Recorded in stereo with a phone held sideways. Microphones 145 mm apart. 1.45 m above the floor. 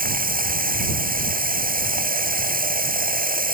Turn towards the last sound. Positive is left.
turn(degrees=-80)